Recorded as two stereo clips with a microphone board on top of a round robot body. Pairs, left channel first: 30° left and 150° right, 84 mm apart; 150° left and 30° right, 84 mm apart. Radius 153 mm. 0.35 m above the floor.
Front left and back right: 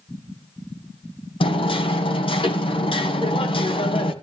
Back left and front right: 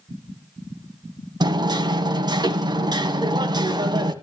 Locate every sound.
1.4 s hammering: 10° left, 1.6 m